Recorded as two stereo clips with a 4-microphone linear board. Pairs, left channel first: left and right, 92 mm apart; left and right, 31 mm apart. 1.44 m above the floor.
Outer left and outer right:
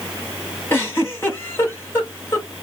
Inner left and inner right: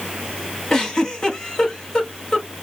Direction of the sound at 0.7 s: 25° left (ahead or behind).